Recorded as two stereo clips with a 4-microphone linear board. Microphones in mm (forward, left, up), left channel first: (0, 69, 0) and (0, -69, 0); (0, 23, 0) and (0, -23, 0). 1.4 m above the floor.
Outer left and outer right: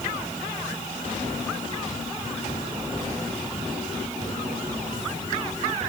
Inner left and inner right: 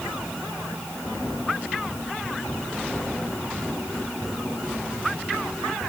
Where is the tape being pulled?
I don't hear tape being pulled.